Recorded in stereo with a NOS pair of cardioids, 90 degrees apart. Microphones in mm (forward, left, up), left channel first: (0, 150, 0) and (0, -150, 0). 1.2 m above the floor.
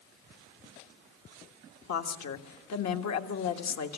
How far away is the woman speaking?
About 1.6 m.